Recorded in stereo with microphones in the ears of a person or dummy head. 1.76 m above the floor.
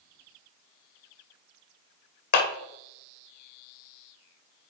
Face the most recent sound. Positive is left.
turn(degrees=45)  # may be behind; listen again after turning